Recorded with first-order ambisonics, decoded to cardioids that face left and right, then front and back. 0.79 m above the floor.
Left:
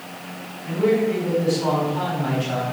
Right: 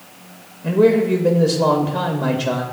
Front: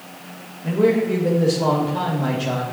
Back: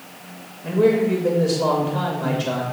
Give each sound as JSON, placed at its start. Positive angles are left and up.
{"t": 0.6, "sound": "a man speaking", "azimuth_deg": -90, "distance_m": 0.9}